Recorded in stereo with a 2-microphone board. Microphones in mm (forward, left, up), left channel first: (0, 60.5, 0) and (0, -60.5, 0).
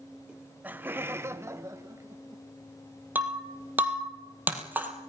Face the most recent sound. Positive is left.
turn(degrees=-15)  # may be behind; listen again after turning